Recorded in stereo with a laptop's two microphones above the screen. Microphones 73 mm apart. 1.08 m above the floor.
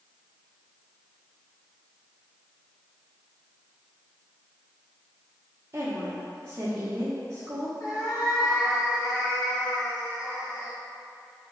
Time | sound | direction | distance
5.7 | a woman speaking | 40° right (ahead or behind) | 0.8 m
7.8 | a cat meowing | 60° left (ahead or behind) | 1.4 m